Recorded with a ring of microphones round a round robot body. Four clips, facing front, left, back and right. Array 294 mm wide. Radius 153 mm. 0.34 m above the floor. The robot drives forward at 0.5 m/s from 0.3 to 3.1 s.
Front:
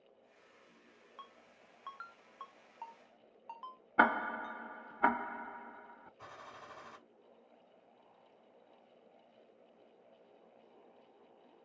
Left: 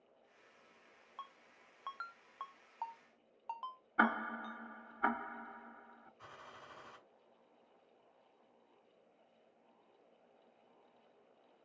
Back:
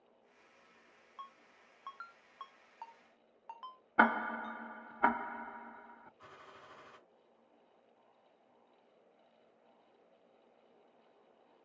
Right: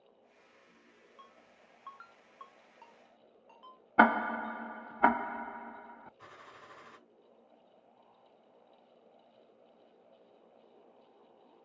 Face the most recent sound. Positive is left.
turn(degrees=-20)